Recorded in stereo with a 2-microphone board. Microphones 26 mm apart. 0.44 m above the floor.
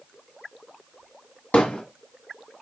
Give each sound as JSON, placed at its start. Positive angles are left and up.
{"t": 1.5, "sound": "hammering", "side_deg": 65, "distance_m": 1.5}